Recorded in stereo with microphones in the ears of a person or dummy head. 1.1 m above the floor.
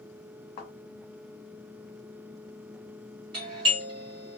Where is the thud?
40° left (ahead or behind), 1.2 m.